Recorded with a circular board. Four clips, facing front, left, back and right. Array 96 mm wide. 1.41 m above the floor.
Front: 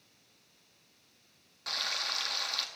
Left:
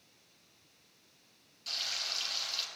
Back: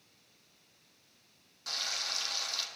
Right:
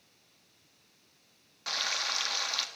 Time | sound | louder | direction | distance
1.7 | frying | right 9 dB, front 3 dB | 70° right | 1.5 m